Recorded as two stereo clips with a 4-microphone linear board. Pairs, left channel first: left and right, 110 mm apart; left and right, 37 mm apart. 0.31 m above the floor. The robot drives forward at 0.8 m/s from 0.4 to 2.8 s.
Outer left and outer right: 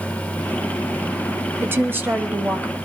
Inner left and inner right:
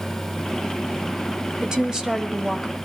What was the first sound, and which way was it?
A woman speaking, 20° right (ahead or behind).